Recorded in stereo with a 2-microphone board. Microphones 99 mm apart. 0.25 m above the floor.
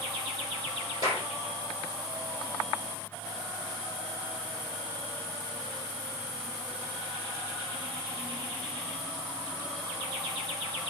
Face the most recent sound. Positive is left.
turn(degrees=35)  # may be behind; listen again after turning